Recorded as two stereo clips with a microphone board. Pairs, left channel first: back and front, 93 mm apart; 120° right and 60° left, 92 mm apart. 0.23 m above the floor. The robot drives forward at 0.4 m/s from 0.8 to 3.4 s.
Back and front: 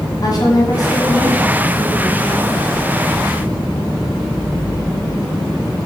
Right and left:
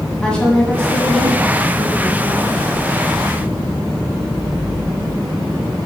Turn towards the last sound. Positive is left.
turn(degrees=170)